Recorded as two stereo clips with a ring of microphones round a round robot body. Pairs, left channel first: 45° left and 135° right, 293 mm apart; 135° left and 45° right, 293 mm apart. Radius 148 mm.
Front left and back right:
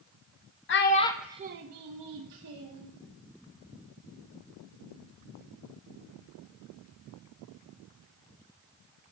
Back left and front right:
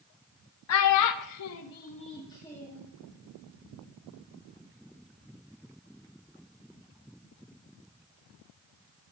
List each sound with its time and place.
0.7 s a child speaking: 95° left, 0.7 m; by 2.9 s 140° right, 1.5 m